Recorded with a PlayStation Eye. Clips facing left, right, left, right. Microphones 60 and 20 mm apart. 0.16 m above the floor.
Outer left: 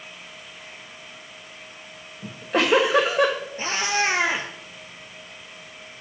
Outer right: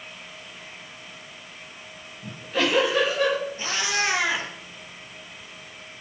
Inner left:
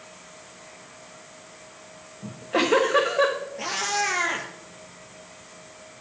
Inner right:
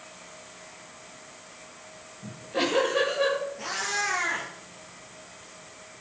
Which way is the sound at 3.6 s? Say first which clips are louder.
Outer left 2 dB, inner left 3 dB; 35° left (ahead or behind).